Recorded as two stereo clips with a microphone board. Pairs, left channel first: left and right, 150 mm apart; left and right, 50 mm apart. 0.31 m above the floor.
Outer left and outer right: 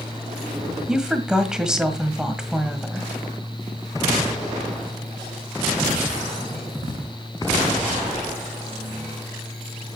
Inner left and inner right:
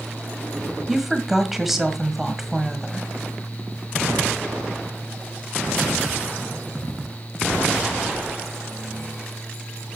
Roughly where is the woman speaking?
Centre.